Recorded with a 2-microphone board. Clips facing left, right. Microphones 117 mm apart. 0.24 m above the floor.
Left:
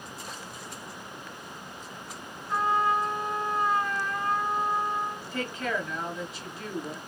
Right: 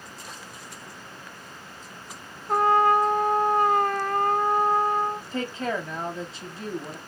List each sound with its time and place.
2.5 s a trumpet: 60° right (ahead or behind), 0.6 m
5.3 s a woman speaking: 30° right (ahead or behind), 1.1 m